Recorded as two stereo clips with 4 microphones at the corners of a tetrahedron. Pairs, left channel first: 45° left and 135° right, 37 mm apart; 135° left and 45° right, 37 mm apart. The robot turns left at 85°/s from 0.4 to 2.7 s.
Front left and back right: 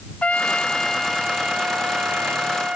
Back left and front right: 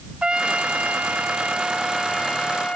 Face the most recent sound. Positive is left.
turn(degrees=175)